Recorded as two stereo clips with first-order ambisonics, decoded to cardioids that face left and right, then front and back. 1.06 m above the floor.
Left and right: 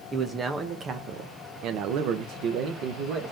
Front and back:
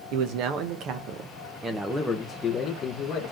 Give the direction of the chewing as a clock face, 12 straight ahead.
I don't hear chewing.